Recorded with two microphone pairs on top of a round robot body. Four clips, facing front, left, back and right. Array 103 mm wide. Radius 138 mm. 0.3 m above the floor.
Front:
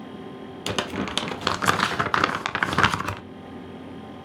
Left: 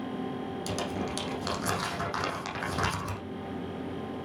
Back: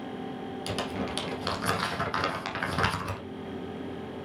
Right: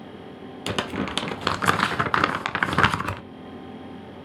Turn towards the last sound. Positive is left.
turn(degrees=-45)